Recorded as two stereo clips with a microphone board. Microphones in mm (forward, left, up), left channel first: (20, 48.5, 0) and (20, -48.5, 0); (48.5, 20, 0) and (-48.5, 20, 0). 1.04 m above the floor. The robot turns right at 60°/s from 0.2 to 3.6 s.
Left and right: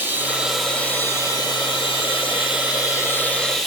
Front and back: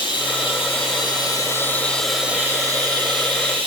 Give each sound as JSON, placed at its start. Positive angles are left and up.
{"t": 0.0, "sound": "running water", "azimuth_deg": -25, "distance_m": 1.0}